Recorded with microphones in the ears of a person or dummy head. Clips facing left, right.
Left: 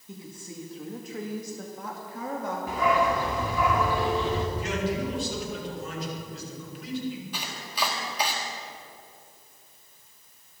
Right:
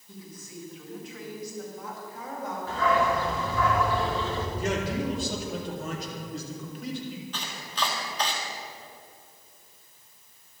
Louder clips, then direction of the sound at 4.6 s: Even; 50° right (ahead or behind).